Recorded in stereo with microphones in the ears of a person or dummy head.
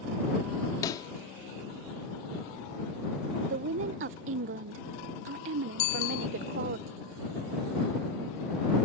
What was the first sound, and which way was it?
A pop, 25° left (ahead or behind).